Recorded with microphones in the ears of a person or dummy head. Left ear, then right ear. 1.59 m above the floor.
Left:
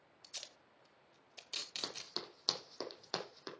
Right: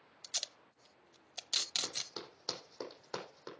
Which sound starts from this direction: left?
Running footsteps, at 1.8 s.